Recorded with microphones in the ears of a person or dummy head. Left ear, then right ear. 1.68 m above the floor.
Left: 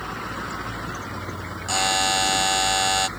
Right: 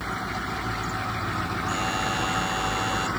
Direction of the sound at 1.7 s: 30° left (ahead or behind).